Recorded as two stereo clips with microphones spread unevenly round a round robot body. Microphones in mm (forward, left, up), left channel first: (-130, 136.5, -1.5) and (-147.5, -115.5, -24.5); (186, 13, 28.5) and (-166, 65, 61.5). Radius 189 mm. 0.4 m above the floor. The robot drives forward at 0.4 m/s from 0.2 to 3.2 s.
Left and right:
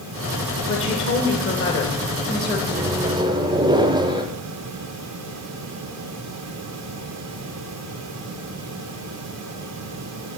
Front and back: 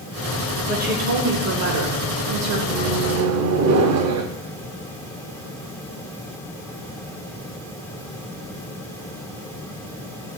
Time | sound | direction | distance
0.7 | a woman speaking | 105° left | 1.0 m
2.7 | a microwave | 135° right | 0.6 m